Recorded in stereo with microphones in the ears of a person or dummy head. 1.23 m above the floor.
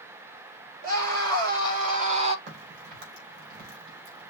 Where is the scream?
60° right (ahead or behind), 3 m; by 2.4 s 35° right (ahead or behind), 1.0 m.